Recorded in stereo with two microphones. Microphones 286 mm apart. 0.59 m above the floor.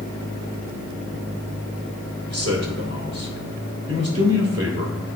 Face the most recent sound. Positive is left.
turn(degrees=-50)  # may be behind; listen again after turning